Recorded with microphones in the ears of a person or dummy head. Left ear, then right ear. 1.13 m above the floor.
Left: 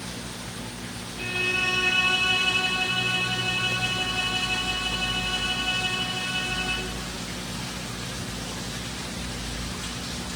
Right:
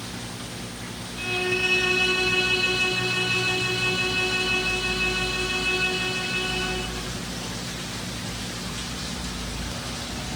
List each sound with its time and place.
1.1 s a violin: 35° right (ahead or behind), 7 m